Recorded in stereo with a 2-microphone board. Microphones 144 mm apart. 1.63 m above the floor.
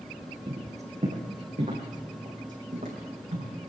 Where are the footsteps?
45° right (ahead or behind), 3.5 m; by 3.5 s 70° right (ahead or behind), 5 m.